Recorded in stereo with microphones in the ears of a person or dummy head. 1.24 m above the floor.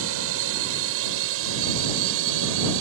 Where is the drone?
70° right (ahead or behind).